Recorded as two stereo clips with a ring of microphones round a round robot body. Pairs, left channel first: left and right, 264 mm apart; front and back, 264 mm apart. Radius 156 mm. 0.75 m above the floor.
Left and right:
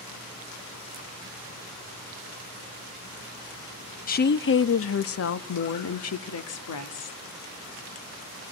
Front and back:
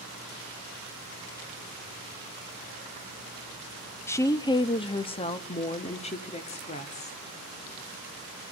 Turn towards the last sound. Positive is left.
turn(degrees=65)